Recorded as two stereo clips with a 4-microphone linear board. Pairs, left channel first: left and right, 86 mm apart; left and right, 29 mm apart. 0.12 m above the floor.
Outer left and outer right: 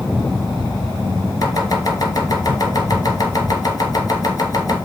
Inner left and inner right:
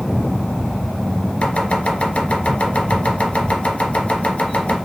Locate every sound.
1.4 s chopping: 45° left (ahead or behind), 1.3 m